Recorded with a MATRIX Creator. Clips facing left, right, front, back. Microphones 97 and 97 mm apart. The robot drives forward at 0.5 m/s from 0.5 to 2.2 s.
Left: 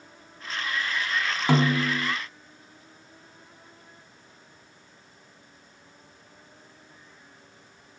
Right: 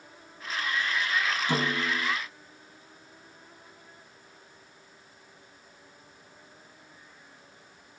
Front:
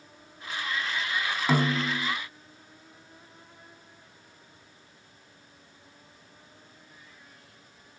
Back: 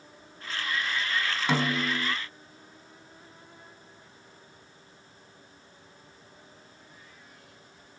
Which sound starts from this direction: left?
A snare drum, at 1.5 s.